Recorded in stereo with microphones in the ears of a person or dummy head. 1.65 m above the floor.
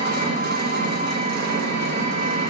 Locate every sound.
0.0 s an engine running: 45° right (ahead or behind), 0.9 m